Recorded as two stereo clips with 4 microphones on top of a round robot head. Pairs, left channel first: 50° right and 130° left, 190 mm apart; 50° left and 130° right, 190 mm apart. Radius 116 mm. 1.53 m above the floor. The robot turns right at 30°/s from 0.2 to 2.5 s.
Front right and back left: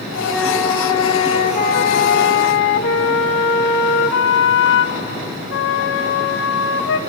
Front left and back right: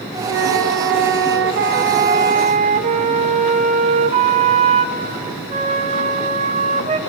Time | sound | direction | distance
0.3 | a flute | 140° right | 2 m